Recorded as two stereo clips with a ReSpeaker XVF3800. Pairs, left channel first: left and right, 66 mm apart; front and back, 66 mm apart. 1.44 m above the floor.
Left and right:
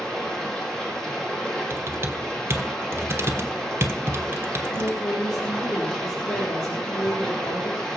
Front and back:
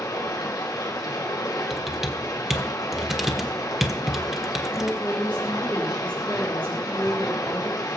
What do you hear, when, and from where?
0.0 s running water: 10° left, 2.5 m
1.7 s typing on a keyboard: 100° right, 1.2 m
4.7 s a woman speaking: 70° left, 3.5 m